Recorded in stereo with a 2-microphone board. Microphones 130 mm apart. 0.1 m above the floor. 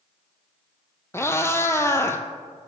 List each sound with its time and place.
1.1 s a cat meowing: 20° left (ahead or behind), 0.6 m